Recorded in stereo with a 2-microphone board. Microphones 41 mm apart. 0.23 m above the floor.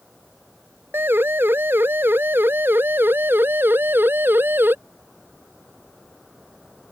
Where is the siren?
65° right (ahead or behind); by 4.8 s 60° right (ahead or behind).